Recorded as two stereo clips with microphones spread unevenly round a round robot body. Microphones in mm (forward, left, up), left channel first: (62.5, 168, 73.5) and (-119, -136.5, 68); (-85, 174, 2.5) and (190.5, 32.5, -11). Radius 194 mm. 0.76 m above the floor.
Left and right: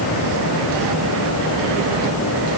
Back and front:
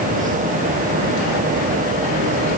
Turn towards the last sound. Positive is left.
No sound to turn to.